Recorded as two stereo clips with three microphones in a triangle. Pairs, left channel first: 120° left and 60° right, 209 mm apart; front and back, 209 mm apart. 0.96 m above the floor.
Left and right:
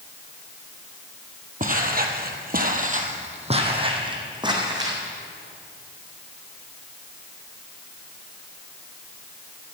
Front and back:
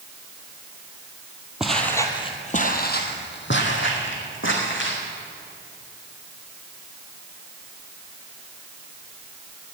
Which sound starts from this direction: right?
Footsteps, at 1.6 s.